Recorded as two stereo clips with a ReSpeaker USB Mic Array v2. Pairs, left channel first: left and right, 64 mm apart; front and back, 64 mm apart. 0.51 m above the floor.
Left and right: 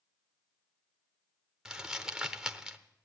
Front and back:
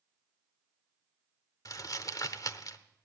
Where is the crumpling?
10° right, 0.8 m.